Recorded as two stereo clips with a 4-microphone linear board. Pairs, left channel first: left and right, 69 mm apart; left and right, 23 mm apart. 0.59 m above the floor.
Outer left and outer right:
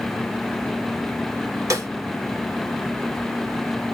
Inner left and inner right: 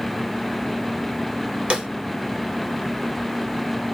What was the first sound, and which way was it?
A snare drum, 55° right (ahead or behind).